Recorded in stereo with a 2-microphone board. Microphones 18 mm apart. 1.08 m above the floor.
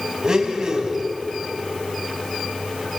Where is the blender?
35° right (ahead or behind), 3.5 m.